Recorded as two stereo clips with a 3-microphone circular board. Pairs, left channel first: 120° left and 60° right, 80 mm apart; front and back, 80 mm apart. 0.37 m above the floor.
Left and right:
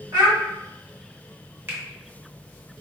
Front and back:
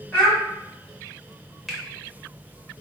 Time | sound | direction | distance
0.1 | a child speaking | 70° right | 1.9 m
1.7 | a finger snap | 90° right | 1.0 m